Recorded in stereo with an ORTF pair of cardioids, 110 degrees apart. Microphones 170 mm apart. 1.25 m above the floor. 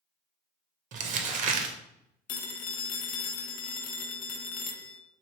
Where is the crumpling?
50° right, 0.6 m.